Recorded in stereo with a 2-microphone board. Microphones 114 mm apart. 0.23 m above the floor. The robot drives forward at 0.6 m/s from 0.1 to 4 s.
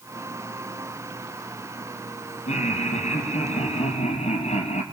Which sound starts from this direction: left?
Laughter, at 2.5 s.